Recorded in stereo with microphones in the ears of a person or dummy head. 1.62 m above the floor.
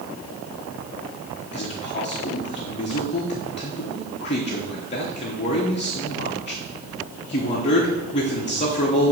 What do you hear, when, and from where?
1.5 s a man speaking: 35° left (ahead or behind), 1.0 m